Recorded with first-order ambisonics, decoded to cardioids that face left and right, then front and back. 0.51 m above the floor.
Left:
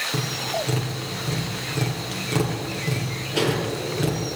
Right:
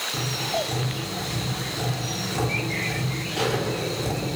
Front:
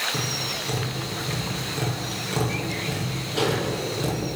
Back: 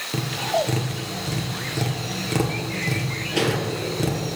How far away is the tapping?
About 5 m.